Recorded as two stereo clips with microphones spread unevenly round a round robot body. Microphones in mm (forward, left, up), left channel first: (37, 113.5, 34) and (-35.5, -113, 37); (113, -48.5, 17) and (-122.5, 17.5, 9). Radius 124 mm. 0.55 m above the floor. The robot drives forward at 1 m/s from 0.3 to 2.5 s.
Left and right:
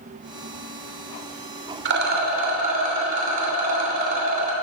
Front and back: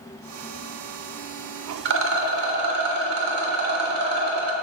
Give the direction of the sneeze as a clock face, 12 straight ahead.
No sneeze in this recording.